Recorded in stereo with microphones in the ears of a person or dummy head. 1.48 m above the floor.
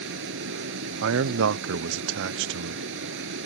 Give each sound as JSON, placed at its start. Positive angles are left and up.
{"t": 0.0, "sound": "a vehicle", "side_deg": -70}
{"t": 1.0, "sound": "a man speaking", "side_deg": -65}